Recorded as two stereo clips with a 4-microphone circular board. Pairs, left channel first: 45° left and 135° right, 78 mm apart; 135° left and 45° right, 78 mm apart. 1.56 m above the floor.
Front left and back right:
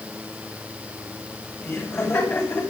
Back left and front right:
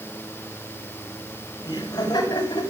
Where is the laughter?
100° left, 7 m; by 2.7 s 105° left, 6.5 m.